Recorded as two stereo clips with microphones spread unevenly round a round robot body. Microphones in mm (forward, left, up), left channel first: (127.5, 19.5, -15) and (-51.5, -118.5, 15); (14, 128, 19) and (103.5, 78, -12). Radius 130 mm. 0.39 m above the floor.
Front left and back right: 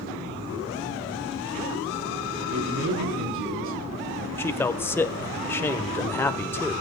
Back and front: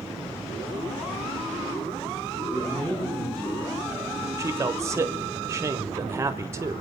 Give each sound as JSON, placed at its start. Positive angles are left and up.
{"t": 2.5, "sound": "a man speaking", "azimuth_deg": -115, "distance_m": 4.0}
{"t": 4.4, "sound": "a man speaking", "azimuth_deg": -30, "distance_m": 1.2}